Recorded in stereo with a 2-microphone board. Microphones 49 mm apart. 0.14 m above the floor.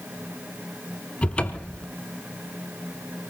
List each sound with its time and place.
1.2 s a cupboard door: 20° left (ahead or behind), 1.0 m